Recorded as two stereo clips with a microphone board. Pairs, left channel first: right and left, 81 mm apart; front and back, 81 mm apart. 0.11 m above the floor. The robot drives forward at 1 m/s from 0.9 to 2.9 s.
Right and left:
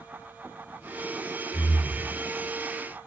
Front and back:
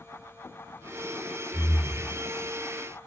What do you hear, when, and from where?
1.5 s breathing: 105° right, 2 m; by 2.1 s 115° right, 2.5 m